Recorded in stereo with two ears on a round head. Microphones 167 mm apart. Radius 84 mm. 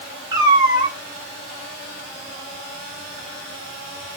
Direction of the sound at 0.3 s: 20° right (ahead or behind).